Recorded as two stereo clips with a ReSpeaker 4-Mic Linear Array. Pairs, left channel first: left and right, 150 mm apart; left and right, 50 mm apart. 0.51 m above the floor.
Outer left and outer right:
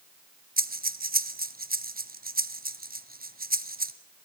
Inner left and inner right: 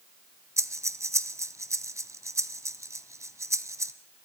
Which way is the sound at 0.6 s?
80° right.